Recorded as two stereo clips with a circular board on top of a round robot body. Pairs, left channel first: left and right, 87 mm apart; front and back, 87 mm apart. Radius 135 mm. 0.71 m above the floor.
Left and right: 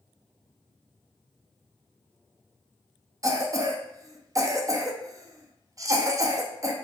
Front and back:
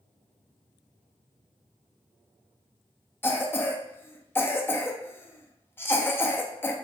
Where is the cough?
55° right, 0.6 m.